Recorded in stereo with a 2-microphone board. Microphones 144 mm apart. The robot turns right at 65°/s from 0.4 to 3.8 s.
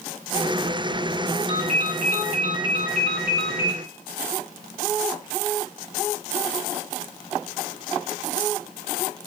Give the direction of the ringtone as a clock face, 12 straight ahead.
10 o'clock.